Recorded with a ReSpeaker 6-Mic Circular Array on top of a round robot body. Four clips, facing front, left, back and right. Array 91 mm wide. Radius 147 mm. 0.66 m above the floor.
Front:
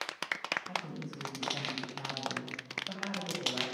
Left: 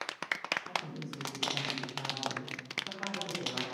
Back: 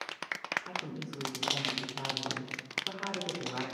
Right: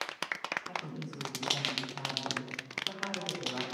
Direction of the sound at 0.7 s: 175° left.